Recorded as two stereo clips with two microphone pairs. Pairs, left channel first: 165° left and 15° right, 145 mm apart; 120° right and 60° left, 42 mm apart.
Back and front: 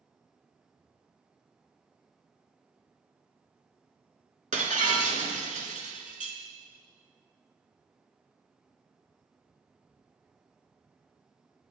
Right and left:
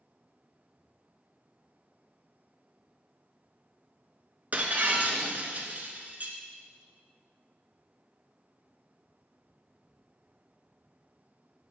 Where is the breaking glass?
10° left, 1.0 m.